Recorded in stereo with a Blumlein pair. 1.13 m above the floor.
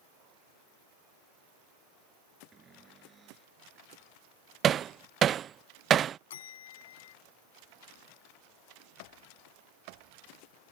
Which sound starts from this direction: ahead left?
A bell, at 6.3 s.